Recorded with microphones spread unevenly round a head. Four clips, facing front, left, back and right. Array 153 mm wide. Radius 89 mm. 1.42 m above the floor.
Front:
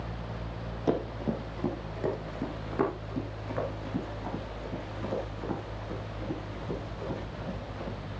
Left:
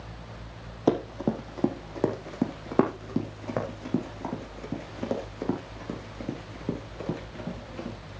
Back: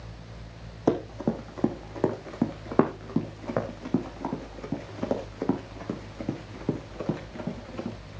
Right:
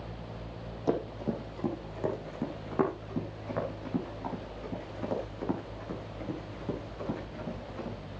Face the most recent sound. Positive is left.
turn(degrees=165)